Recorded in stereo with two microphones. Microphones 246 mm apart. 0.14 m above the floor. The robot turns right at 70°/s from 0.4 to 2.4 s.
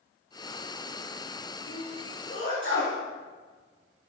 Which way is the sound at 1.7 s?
60° left (ahead or behind).